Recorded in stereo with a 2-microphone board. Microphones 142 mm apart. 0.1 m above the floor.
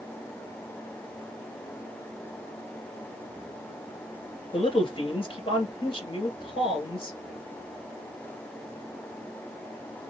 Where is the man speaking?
40° left (ahead or behind), 2.0 m.